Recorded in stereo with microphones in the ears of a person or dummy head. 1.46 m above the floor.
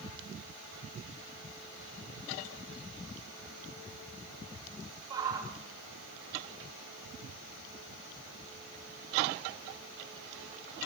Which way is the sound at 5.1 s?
20° right (ahead or behind).